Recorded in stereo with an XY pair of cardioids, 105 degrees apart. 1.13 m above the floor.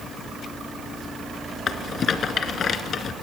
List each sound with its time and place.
1.7 s a rattle: 60° left, 2 m